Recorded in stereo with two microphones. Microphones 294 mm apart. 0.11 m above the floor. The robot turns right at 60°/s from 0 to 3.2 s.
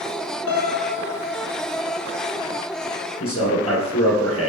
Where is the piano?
105° left, 0.7 m; by 1.5 s 170° left, 0.7 m.